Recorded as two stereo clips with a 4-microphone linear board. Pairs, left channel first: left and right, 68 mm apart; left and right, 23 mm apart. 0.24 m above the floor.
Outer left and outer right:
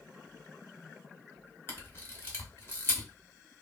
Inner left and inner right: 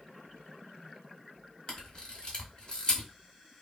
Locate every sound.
1.7 s a camera shutter: 30° left (ahead or behind), 1.2 m